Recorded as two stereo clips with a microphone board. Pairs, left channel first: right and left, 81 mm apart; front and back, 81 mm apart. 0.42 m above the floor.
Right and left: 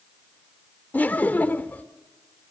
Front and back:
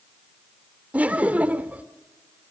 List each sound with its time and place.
0.9 s laughter: 130° right, 0.9 m